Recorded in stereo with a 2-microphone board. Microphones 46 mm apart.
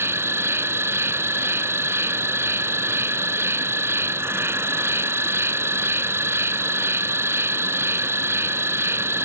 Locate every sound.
0.0 s an insect: 70° right (ahead or behind)